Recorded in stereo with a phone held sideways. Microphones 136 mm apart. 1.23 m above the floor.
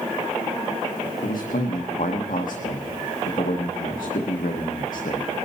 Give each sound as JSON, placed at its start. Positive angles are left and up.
{"t": 1.2, "sound": "a man speaking", "side_deg": 85, "distance_m": 1.0}